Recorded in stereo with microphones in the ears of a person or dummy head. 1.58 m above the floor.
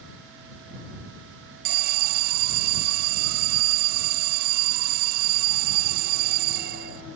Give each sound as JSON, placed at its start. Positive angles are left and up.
{"t": 1.6, "sound": "an alarm", "side_deg": -50}